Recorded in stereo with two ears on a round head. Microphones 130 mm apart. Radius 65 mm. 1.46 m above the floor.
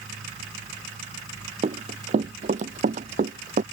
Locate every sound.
1.6 s running footsteps: 45° right (ahead or behind); by 3.6 s 55° right (ahead or behind)